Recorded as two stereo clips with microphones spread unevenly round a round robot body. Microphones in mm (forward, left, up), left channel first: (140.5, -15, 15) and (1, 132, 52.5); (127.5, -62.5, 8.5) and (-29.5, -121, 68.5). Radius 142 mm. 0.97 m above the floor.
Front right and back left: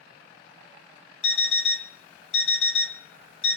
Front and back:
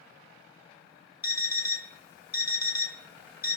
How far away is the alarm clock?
About 1.3 m.